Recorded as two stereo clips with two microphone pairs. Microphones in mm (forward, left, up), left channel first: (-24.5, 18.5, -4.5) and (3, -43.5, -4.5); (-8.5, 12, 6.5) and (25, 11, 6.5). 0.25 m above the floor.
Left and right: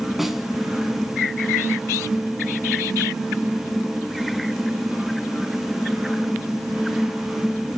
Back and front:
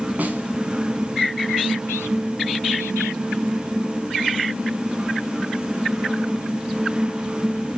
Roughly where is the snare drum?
Ahead.